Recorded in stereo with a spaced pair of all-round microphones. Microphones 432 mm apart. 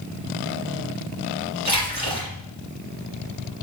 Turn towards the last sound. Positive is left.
turn(degrees=-60)  # may be behind; listen again after turning